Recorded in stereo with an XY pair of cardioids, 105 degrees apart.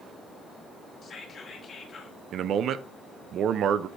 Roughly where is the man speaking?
Ahead right.